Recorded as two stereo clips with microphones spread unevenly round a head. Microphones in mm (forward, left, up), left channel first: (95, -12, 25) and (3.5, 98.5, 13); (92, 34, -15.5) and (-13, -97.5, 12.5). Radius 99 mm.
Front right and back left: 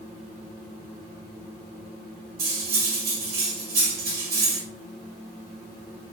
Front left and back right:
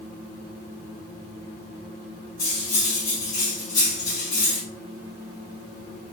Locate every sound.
2.4 s cutlery clinking: 125° left, 1.3 m